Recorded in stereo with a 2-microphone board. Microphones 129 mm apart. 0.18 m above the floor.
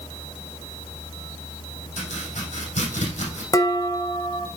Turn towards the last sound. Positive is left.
turn(degrees=25)  # may be behind; listen again after turning